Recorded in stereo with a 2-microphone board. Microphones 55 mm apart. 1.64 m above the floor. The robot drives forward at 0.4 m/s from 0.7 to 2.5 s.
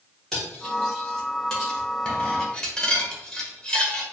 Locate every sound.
0.3 s cutlery clinking: 10° left (ahead or behind), 1.2 m; by 4.0 s 15° left (ahead or behind), 0.9 m